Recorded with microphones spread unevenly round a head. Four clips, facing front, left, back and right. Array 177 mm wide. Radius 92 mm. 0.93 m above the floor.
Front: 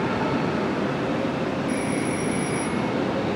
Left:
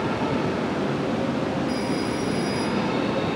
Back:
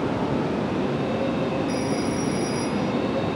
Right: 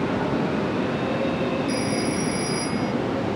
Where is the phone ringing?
40° right.